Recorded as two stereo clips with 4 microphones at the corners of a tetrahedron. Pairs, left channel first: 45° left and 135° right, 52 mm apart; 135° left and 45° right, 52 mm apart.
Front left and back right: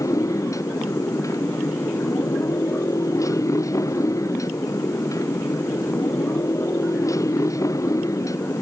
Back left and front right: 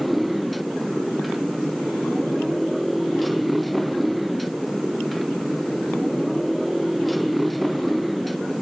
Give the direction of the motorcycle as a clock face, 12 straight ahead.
10 o'clock.